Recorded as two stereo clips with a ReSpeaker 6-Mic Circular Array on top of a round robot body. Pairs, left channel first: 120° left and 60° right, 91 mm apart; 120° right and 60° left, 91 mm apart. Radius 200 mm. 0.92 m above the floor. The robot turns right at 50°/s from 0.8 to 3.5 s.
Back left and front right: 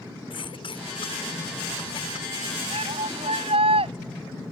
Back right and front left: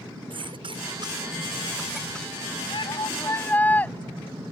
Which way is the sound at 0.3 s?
90° left.